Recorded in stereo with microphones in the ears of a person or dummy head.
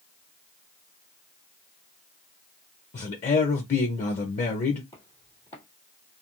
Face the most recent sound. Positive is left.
turn(degrees=20)  # may be behind; listen again after turning